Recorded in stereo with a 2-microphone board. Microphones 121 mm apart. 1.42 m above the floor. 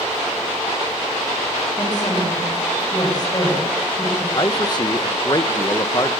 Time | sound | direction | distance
1.8 | a woman speaking | 35° left (ahead or behind) | 9.5 m
4.3 | a man speaking | 35° left (ahead or behind) | 1.6 m